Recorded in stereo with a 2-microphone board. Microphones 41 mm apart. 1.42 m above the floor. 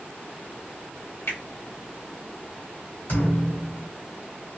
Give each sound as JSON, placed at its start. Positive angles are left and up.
{"t": 1.3, "sound": "a finger snap", "side_deg": 75, "distance_m": 1.3}
{"t": 3.1, "sound": "a thud", "side_deg": 50, "distance_m": 1.7}